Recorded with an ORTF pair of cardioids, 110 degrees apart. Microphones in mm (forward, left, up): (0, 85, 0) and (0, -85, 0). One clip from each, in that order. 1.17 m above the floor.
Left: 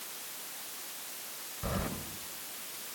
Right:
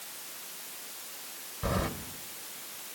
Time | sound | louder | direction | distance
1.6 | keys jangling | right 5 dB | 35° right | 3.5 m